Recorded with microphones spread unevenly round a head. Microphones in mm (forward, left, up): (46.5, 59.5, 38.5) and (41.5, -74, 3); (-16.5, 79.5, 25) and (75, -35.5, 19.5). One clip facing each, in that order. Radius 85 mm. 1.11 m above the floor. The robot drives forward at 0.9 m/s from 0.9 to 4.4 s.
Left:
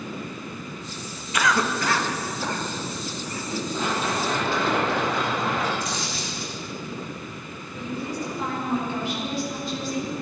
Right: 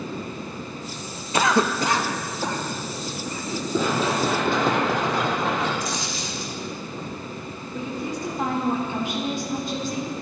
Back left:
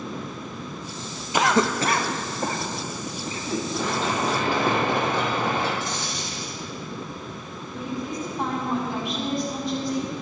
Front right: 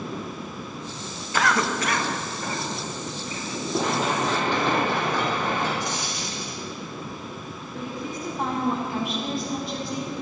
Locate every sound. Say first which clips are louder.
1.3 s a cough: right 3 dB, back left 3 dB; 155° right, 0.6 m; by 3.6 s 175° right, 2.5 m
3.7 s running footsteps: right 6 dB, front right 4 dB; 120° right, 2.5 m; by 5.7 s 170° right, 4 m
5.8 s a dropped coin: right 1 dB, even; 130° right, 3.5 m
7.7 s a woman speaking: right 1 dB, back left 3 dB; 140° right, 4 m